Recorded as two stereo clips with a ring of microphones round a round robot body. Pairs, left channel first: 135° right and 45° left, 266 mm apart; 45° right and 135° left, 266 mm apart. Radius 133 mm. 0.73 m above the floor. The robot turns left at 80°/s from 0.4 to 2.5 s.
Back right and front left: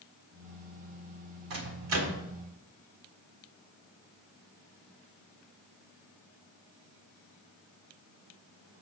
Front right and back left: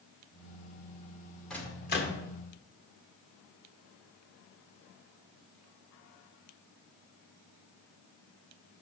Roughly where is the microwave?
Ahead left.